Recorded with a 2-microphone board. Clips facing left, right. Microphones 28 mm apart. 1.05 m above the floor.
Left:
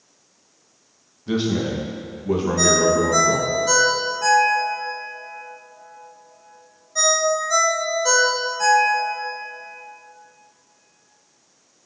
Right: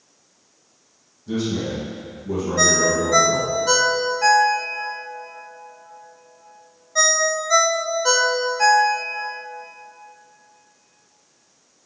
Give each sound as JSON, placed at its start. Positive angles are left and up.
{"t": 1.3, "sound": "a man speaking", "side_deg": 45, "distance_m": 1.3}
{"t": 2.6, "sound": "a ringtone", "side_deg": -30, "distance_m": 0.6}